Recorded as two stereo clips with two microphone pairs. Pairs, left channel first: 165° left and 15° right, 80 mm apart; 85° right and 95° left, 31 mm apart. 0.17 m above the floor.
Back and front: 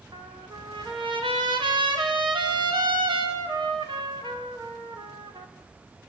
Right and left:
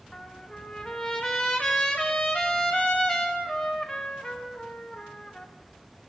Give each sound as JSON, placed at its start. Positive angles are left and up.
{"t": 0.1, "sound": "a trumpet", "azimuth_deg": -20, "distance_m": 4.0}